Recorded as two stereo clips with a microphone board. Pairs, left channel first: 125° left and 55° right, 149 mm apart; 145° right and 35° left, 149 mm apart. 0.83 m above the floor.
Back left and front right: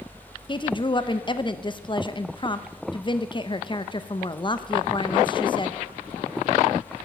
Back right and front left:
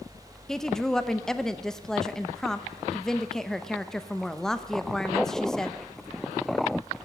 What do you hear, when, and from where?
0.5 s a woman speaking: 130° left, 0.7 m